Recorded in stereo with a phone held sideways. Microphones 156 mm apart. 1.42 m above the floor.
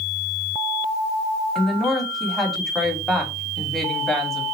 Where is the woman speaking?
Centre (ahead or behind), 3 m.